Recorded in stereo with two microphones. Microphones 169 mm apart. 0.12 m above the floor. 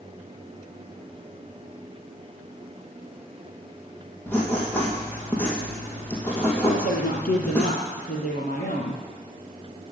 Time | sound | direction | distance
4.3 | writing | 15° left (ahead or behind) | 2.5 m
6.7 | a woman speaking | 60° left (ahead or behind) | 3 m